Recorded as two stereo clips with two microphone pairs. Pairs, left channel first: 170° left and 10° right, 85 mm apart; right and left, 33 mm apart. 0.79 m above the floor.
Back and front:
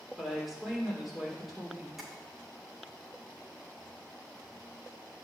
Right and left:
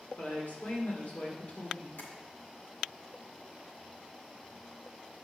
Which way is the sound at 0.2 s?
95° right.